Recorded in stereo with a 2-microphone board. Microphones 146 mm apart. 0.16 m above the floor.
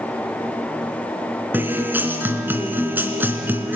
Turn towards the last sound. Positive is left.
turn(degrees=-15)  # may be behind; listen again after turning